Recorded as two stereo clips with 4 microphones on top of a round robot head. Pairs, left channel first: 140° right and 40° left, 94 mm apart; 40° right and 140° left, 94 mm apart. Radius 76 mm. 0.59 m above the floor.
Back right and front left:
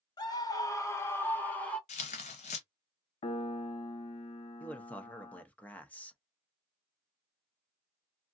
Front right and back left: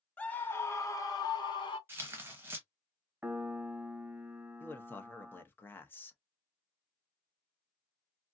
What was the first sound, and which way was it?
A scream, 110° right.